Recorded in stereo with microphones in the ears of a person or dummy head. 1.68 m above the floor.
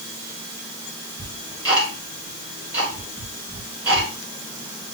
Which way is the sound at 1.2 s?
5° right (ahead or behind).